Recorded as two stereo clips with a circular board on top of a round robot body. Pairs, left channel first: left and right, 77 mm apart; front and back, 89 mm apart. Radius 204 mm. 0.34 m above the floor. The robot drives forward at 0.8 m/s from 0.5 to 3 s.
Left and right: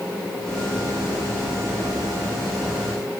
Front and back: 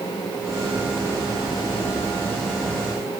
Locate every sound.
Only background noise.